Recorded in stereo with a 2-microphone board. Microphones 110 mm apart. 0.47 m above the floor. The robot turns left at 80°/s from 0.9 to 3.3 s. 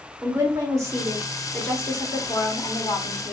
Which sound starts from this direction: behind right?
A woman speaking, at 0.2 s.